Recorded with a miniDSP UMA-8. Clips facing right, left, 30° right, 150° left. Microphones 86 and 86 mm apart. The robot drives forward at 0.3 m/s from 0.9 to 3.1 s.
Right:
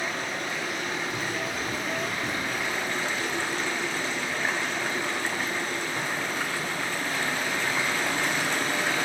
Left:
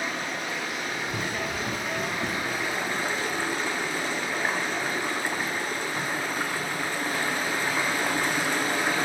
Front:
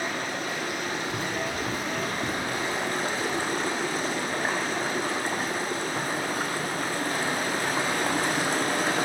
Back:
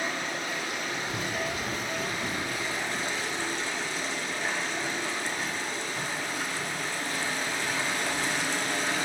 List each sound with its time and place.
0.0 s running water: 5° left, 1.4 m; by 9.1 s 10° left, 0.7 m
1.1 s running footsteps: 70° left, 0.8 m; by 8.9 s straight ahead, 5 m